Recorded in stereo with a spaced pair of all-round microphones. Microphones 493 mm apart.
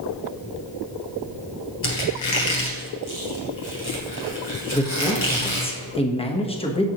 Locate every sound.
1.8 s a squeak: 65° left (ahead or behind), 3 m
4.7 s a man speaking: 10° left (ahead or behind), 1.1 m